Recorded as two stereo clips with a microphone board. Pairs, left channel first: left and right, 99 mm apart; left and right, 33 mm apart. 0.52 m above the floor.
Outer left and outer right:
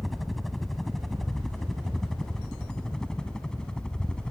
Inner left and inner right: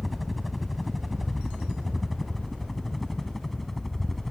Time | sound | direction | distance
0.0 | a helicopter | centre (ahead or behind) | ?